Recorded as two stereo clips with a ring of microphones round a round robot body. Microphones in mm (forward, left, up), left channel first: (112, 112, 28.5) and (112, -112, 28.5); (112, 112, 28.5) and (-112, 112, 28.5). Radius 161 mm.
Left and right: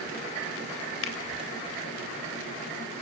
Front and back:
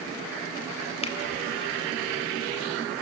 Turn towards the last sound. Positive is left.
turn(degrees=65)